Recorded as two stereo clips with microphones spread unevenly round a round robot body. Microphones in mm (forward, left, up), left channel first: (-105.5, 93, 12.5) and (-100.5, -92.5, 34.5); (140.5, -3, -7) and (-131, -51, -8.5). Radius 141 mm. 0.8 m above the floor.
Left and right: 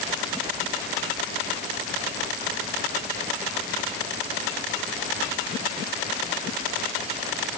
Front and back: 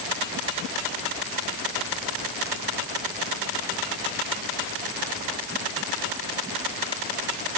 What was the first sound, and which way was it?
Only background noise.